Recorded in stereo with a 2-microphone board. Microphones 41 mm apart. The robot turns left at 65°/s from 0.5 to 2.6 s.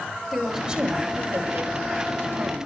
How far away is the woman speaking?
About 5 m.